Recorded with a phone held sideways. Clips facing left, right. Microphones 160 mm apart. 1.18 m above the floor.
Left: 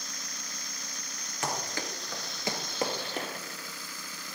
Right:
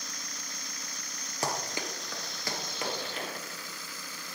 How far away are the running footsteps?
About 1.4 m.